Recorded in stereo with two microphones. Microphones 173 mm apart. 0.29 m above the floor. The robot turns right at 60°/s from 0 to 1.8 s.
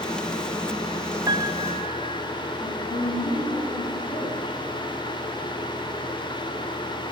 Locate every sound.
1.3 s a piano: 150° right, 1.4 m; by 2.2 s 120° right, 1.4 m
2.6 s a woman speaking: 10° left (ahead or behind), 9.5 m